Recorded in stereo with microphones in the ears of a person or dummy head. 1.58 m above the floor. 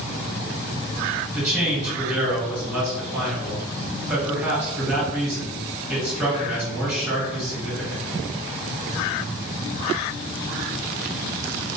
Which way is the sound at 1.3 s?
10° right (ahead or behind).